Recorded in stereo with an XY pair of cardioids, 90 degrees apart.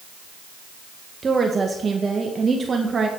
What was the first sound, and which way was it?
A woman speaking, 35° right.